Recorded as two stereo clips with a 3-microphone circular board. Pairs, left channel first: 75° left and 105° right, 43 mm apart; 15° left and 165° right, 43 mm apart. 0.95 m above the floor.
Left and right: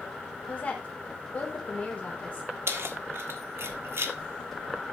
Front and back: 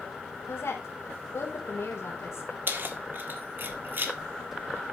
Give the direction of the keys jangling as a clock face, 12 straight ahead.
4 o'clock.